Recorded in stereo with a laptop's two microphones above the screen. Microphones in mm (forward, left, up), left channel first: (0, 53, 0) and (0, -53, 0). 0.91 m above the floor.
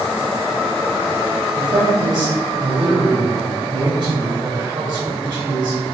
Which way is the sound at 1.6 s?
50° right (ahead or behind).